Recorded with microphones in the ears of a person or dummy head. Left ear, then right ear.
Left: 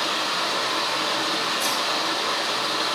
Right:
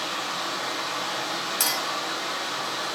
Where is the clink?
45° right (ahead or behind), 0.8 m.